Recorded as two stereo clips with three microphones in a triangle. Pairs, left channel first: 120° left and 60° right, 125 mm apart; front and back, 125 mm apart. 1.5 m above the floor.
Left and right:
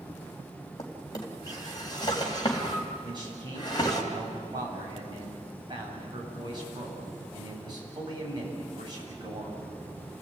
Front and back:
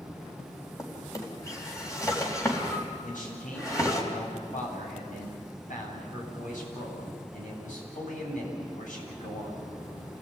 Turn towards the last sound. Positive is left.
turn(degrees=-5)